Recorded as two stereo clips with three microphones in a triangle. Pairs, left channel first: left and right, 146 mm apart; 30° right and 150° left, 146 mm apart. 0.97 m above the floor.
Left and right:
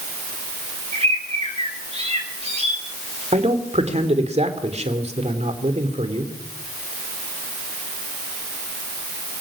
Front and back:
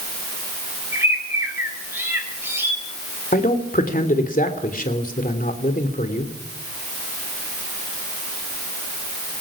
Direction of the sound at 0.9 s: 135° right.